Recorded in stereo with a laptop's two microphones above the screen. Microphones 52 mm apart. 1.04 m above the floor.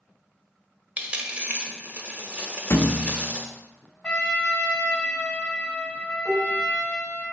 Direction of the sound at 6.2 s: 5° left (ahead or behind).